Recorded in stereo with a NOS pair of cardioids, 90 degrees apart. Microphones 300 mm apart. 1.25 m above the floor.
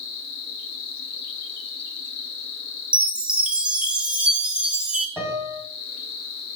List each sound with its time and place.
0.0 s an insect: 70° left, 0.8 m
2.9 s a chime: 5° right, 0.6 m
5.2 s a piano: 5° left, 1.5 m